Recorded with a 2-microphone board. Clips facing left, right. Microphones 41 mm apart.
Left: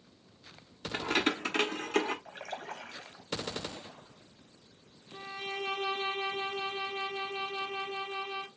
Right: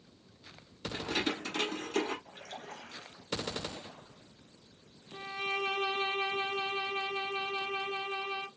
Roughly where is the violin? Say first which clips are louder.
Right 3 dB; right.